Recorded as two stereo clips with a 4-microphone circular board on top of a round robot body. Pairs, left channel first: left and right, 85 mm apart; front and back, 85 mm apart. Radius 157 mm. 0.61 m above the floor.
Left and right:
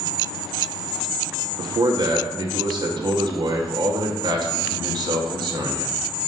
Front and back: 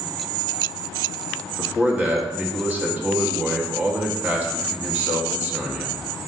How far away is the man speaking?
About 1.5 m.